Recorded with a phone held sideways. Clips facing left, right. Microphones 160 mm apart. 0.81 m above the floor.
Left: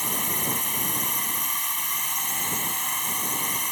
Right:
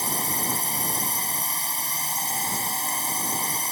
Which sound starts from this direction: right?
A drone, at 0.0 s.